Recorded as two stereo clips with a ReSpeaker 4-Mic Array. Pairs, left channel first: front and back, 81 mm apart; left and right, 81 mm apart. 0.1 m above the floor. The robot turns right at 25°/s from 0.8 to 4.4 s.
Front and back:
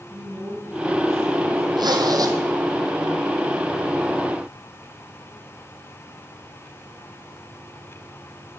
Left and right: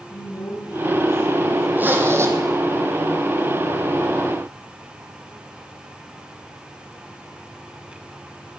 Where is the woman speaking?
120° left, 3.5 m; by 1.7 s 145° left, 3.5 m.